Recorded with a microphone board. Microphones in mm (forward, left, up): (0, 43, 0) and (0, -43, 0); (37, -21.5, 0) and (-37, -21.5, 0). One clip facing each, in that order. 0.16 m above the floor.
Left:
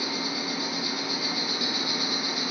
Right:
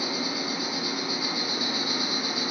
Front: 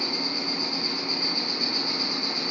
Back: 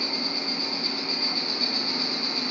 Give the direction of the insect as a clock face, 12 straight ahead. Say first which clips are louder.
Right 1 dB, front 1 dB; 2 o'clock.